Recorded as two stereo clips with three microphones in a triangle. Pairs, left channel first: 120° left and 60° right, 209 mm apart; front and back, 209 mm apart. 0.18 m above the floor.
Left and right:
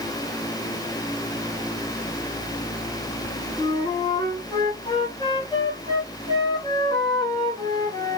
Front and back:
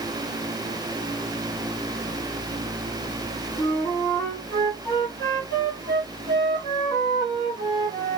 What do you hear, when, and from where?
3.6 s a flute: 60° left, 1.5 m